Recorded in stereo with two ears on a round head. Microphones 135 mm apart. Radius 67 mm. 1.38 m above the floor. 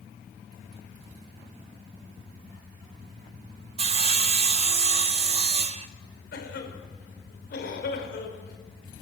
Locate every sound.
3.8 s sawing: 40° right (ahead or behind), 0.8 m
6.3 s a cough: 70° left (ahead or behind), 5 m